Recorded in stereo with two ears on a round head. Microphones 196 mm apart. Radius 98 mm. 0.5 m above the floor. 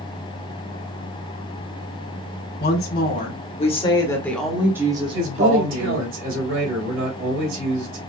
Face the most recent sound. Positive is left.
turn(degrees=-55)  # may be behind; listen again after turning